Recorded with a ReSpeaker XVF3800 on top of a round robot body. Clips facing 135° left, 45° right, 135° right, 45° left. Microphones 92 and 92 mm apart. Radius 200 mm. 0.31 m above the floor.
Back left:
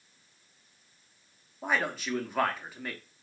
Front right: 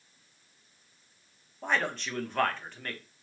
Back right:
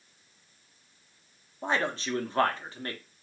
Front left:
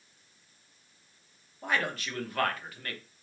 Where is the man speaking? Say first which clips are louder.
Even, back right 2 dB; 150° right, 1.0 m.